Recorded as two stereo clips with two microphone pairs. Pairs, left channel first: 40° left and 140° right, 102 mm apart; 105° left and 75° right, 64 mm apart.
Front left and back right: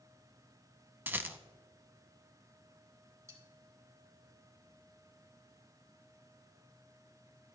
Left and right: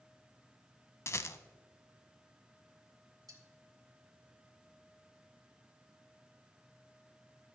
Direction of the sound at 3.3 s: 85° right.